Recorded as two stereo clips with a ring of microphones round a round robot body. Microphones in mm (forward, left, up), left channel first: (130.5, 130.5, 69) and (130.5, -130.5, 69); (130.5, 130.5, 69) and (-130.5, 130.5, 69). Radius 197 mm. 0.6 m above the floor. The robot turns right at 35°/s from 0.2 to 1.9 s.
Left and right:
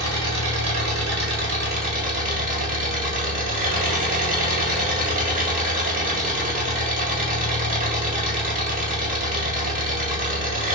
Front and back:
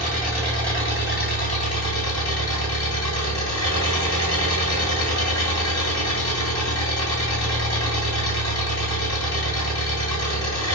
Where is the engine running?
90° right, 2 m; by 10.8 s 30° right, 2 m.